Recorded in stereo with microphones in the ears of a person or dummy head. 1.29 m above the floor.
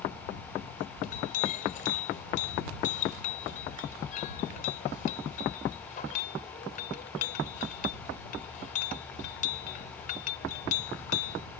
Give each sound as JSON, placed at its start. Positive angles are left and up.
{"t": 1.0, "sound": "a clink", "side_deg": 45}